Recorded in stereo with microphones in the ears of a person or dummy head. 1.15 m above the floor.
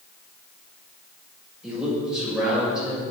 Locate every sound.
1.6 s a man speaking: 10° right (ahead or behind), 5 m